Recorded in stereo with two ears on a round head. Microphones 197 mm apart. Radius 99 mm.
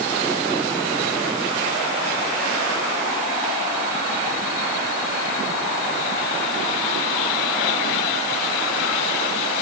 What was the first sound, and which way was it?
Only background noise.